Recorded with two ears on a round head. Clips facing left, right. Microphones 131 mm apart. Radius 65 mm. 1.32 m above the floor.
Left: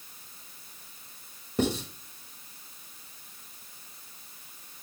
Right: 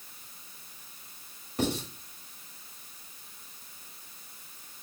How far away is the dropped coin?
No dropped coin in this recording.